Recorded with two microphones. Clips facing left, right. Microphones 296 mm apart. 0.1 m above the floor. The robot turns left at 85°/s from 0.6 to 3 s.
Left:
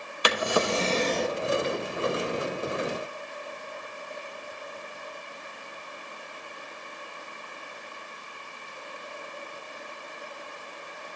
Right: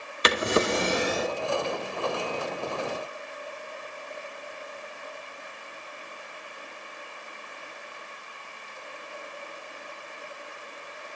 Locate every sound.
0.2 s a drawer: 25° right (ahead or behind), 0.7 m; by 1.4 s centre (ahead or behind), 0.7 m